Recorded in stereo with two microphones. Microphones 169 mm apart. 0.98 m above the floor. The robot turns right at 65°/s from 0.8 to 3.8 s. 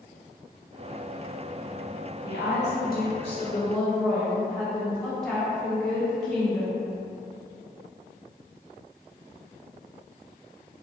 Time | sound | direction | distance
2.2 | a woman speaking | 75° left | 1.1 m